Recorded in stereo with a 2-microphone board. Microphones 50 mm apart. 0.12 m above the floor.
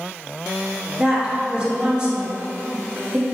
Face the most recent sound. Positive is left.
turn(degrees=-20)  # may be behind; listen again after turning